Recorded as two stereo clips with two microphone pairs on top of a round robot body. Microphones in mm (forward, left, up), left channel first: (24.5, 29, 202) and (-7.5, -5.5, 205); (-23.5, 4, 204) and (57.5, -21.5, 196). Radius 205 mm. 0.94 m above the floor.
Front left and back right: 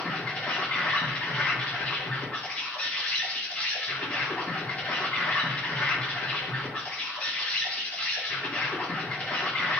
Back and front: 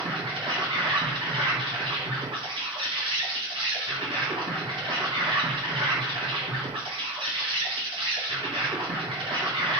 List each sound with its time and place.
0.0 s an insect: 20° right, 1.5 m